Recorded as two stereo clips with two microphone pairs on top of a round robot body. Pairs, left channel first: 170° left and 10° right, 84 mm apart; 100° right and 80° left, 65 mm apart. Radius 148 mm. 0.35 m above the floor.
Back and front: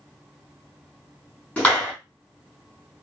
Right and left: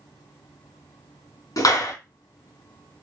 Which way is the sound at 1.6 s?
110° right.